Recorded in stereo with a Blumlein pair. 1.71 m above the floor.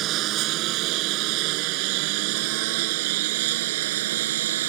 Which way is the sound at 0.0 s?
35° right.